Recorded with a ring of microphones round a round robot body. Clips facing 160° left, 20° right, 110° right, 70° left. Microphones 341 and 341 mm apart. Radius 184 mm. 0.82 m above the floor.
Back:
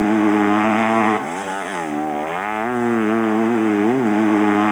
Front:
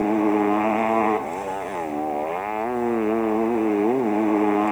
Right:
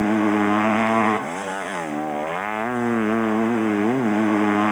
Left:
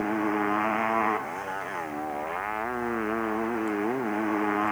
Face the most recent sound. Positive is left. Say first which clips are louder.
# back 4 dB, right 8 dB
turn(degrees=-145)